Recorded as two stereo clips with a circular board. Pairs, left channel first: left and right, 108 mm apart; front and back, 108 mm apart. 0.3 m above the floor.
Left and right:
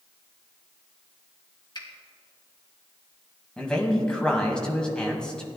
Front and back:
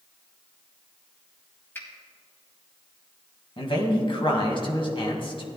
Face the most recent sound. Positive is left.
turn(degrees=10)